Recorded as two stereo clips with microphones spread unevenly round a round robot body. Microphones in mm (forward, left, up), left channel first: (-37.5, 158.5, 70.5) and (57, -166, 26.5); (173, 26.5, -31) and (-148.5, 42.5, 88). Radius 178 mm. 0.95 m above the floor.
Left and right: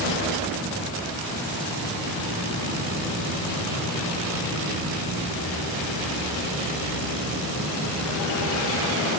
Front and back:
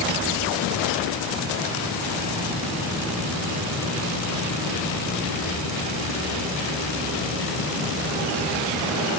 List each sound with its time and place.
Only background noise.